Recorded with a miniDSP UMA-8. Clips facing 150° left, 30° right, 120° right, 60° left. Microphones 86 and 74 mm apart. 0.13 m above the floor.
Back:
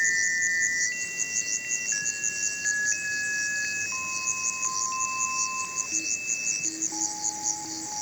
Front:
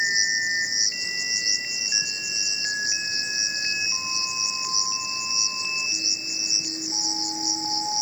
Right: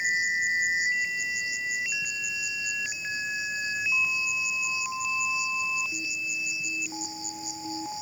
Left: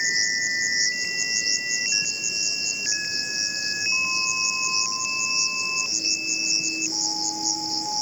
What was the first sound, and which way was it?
An insect, 45° left.